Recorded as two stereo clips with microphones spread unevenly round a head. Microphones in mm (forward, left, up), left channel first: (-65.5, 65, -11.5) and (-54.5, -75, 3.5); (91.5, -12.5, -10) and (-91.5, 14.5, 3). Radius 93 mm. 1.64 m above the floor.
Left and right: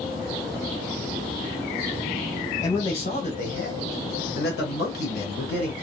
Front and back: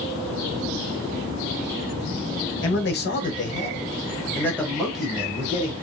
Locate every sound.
2.6 s a man speaking: 20° left, 1.1 m; by 5.7 s 95° left, 1.5 m